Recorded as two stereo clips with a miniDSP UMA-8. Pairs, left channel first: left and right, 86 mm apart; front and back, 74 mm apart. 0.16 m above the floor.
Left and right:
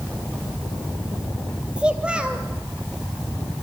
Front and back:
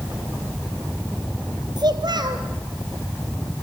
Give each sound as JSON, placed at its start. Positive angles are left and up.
{"t": 1.8, "sound": "a child speaking", "azimuth_deg": -165, "distance_m": 2.5}